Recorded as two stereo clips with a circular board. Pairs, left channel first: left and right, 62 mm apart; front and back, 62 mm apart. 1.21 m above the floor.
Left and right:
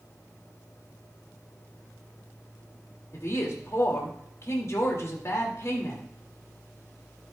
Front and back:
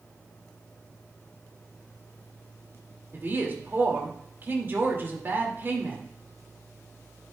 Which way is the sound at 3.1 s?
125° left.